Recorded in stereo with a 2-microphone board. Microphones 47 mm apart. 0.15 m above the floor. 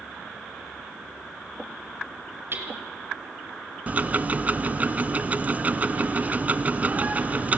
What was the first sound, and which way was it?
Hammering, 50° right (ahead or behind).